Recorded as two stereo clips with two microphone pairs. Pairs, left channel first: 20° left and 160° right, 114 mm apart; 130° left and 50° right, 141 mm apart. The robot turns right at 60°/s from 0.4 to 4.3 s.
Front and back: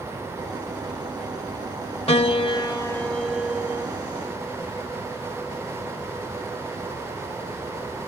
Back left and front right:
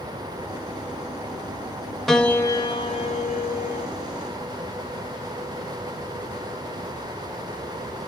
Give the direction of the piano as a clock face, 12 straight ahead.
11 o'clock.